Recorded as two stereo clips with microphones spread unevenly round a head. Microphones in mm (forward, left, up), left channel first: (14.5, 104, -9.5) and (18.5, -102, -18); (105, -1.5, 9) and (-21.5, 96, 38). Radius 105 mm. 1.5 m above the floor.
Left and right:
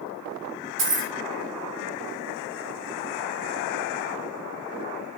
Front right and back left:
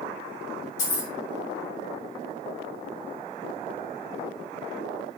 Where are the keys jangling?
85° right, 0.8 m.